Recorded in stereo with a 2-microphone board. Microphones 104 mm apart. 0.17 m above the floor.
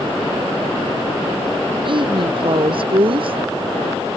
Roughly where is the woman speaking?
Right.